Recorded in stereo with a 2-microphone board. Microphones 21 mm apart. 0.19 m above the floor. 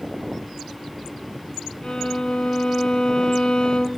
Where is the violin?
60° left (ahead or behind), 0.6 m.